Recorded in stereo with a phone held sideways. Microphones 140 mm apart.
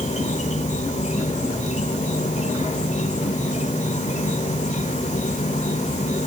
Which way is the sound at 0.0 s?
55° left (ahead or behind).